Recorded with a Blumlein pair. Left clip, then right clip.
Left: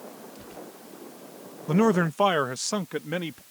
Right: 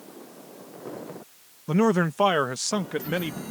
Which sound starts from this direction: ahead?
A man speaking, at 1.7 s.